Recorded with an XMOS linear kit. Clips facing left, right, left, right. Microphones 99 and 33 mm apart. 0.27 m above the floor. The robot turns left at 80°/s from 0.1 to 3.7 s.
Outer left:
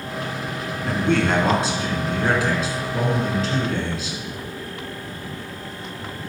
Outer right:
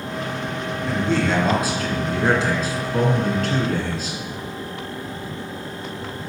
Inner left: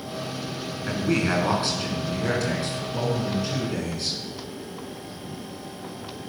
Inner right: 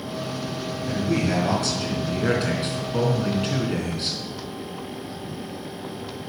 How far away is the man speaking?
About 3.5 m.